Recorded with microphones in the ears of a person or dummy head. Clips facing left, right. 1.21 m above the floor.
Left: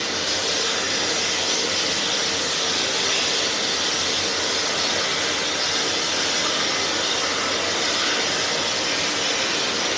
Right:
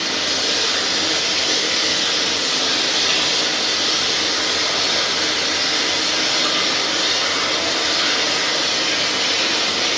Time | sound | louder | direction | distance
0.0 | running water | right 2 dB | 40° right (ahead or behind) | 0.8 m